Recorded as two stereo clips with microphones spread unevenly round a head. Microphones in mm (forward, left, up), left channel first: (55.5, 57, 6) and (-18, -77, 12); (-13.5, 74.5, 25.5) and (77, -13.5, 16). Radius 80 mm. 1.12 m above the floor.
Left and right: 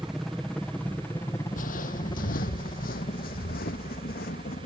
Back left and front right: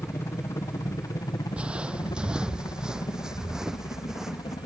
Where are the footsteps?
40° left; by 4.6 s 45° left.